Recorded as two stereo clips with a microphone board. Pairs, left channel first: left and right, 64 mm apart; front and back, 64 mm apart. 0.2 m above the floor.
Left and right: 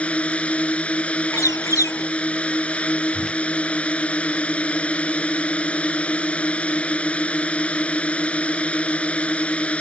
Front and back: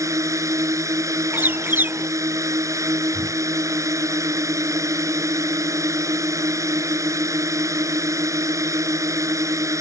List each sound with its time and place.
0.0 s a drone: 160° left
1.3 s a bird: 120° left
3.1 s a whoosh: 175° left